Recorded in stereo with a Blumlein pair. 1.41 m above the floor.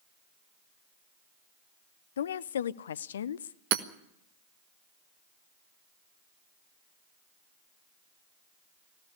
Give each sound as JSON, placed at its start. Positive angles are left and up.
{"t": 2.2, "sound": "a woman speaking", "azimuth_deg": 65, "distance_m": 0.5}
{"t": 3.7, "sound": "hammering", "azimuth_deg": -45, "distance_m": 1.1}